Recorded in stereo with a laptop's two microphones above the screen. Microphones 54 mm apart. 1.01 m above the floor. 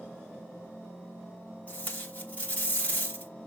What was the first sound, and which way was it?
Tape being pulled, 35° left (ahead or behind).